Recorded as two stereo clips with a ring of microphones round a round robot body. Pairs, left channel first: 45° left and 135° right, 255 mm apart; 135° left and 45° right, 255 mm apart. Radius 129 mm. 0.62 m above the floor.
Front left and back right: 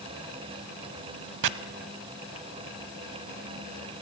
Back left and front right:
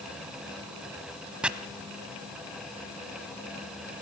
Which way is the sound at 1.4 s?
130° right.